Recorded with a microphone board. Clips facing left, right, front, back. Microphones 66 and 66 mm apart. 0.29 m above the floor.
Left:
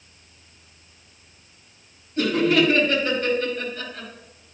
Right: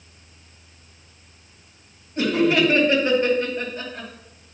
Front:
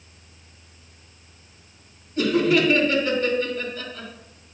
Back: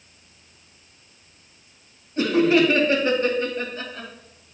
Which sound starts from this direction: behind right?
Laughter, at 2.2 s.